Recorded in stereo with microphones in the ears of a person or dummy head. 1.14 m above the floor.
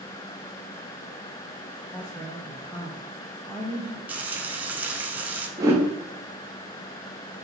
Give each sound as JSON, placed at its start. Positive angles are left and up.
{"t": 1.9, "sound": "a woman speaking", "side_deg": 10, "distance_m": 0.6}
{"t": 4.1, "sound": "frying", "side_deg": -10, "distance_m": 0.6}
{"t": 5.6, "sound": "a whoosh", "side_deg": -15, "distance_m": 0.8}